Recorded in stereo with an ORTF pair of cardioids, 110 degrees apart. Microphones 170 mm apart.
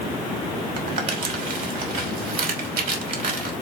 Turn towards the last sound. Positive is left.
turn(degrees=-50)